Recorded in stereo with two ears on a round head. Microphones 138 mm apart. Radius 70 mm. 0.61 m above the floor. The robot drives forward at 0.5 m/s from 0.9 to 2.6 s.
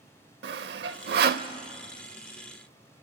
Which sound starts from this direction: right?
Sawing, at 0.4 s.